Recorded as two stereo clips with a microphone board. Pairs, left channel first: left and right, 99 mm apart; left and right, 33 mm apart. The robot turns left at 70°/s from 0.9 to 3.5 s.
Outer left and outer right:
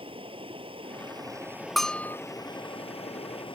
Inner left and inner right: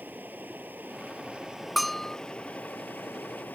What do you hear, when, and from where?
0.0 s running water: 115° right; by 3.5 s 65° left
1.8 s a bell: centre (ahead or behind); by 2.2 s 30° left (ahead or behind)